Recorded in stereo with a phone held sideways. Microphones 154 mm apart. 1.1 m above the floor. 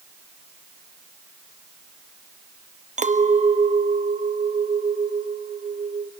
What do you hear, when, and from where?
3.0 s a clink: 50° right (ahead or behind), 0.7 m